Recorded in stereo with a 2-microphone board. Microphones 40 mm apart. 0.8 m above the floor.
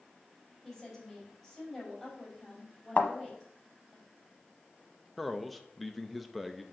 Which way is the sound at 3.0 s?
50° left (ahead or behind).